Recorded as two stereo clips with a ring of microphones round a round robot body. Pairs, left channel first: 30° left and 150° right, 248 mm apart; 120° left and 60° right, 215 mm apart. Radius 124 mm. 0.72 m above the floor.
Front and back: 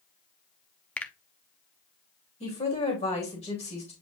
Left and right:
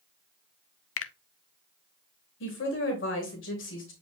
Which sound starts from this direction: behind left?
A finger snap, at 1.0 s.